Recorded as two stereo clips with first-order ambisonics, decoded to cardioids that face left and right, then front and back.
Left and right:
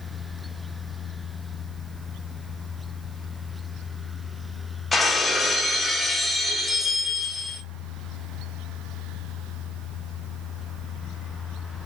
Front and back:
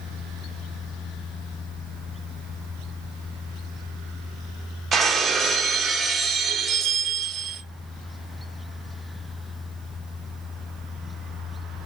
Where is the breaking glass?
165° left, 0.7 m.